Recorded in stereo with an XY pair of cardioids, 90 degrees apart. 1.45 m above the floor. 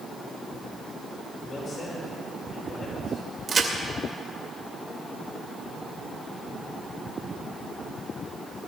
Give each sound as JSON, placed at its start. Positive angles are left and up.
{"t": 1.5, "sound": "a man speaking", "azimuth_deg": 55, "distance_m": 6.5}
{"t": 3.5, "sound": "a crack", "azimuth_deg": -40, "distance_m": 2.5}